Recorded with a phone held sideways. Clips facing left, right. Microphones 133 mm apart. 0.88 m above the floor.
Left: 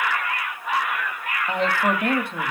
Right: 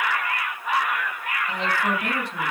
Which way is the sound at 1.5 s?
55° left (ahead or behind).